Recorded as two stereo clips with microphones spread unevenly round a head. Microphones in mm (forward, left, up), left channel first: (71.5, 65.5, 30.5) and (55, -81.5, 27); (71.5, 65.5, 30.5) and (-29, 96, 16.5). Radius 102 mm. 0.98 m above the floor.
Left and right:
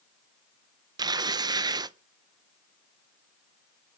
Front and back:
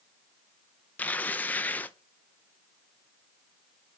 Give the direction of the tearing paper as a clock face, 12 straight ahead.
3 o'clock.